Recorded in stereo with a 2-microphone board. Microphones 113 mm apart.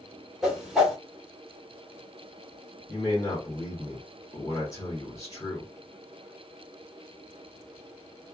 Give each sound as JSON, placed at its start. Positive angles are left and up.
{"t": 0.4, "sound": "a whoosh", "side_deg": -5, "distance_m": 1.0}
{"t": 2.9, "sound": "a man speaking", "side_deg": 30, "distance_m": 1.7}